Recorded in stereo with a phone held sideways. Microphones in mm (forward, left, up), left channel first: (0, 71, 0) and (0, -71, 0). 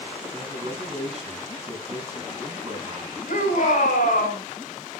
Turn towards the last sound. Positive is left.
turn(degrees=75)  # may be behind; listen again after turning